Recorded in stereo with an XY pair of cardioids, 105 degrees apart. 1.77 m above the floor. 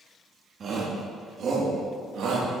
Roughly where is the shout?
Ahead right.